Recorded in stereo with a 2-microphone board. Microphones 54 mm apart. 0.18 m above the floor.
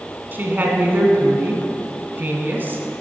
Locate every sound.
0.3 s a woman speaking: 40° right (ahead or behind), 1.3 m